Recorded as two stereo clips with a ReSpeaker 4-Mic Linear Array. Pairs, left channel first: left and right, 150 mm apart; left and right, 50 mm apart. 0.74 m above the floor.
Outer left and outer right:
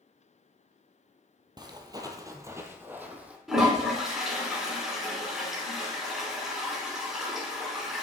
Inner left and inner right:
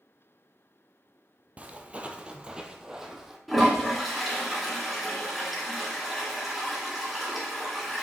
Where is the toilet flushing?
5° right (ahead or behind), 2.5 m.